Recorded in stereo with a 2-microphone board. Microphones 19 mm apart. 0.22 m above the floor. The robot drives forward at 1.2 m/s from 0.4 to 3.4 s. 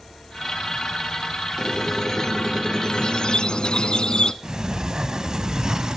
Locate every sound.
1.6 s a squeak: 20° left (ahead or behind), 3 m; by 4.3 s 55° left (ahead or behind), 1.1 m
4.4 s a sliding door: 40° right (ahead or behind), 0.9 m